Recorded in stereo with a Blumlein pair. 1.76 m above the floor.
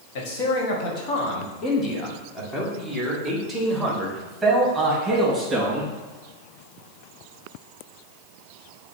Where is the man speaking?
50° left, 2.0 m; by 5.9 s 15° right, 3.5 m.